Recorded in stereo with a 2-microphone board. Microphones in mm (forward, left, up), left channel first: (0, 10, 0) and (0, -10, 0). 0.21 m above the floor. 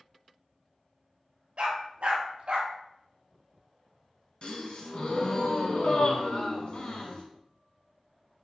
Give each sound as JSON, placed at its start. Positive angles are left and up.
{"t": 1.6, "sound": "a dog barking", "side_deg": -80, "distance_m": 1.1}
{"t": 4.4, "sound": "a gasp", "side_deg": 55, "distance_m": 0.9}